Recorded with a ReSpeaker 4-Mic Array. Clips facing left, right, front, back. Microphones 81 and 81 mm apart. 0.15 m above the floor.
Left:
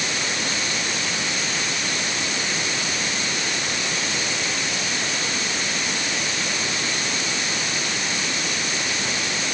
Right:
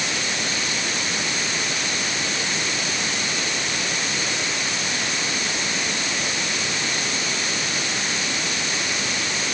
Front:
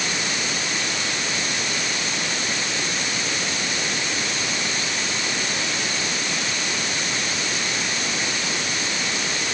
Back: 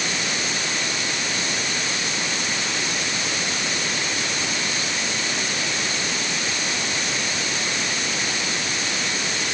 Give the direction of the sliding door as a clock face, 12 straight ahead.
I don't hear a sliding door.